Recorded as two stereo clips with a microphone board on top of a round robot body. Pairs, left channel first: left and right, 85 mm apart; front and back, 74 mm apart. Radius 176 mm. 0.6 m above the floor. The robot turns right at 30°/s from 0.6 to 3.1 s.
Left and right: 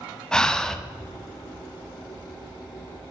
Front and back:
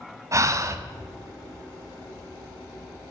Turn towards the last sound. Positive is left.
turn(degrees=-115)